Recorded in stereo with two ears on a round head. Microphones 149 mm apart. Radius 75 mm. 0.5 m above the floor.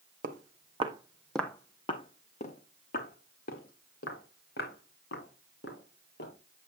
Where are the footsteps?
55° right (ahead or behind), 1.6 m; by 6.3 s 70° left (ahead or behind), 6.5 m.